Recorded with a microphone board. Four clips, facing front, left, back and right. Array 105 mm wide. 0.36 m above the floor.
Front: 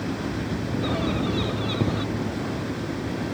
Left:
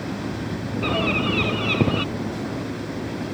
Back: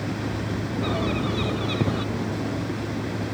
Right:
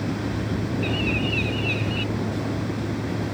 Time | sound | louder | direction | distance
0.8 | a bird | left 3 dB, even | 95° left | ?